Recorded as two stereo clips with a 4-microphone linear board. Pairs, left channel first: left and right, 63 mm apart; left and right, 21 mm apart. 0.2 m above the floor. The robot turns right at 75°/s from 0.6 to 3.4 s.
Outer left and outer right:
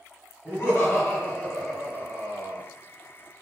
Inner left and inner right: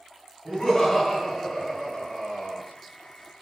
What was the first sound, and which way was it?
Laughter, 100° left.